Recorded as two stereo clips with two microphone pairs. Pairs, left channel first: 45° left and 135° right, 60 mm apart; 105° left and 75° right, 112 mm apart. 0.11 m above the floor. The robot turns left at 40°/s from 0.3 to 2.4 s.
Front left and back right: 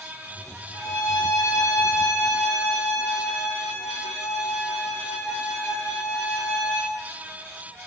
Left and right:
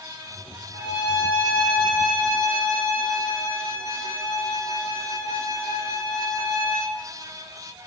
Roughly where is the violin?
Ahead left.